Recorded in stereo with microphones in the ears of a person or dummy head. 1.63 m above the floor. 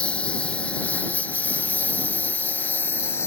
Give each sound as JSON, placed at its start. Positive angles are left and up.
{"t": 0.0, "sound": "a lawn mower", "side_deg": 10}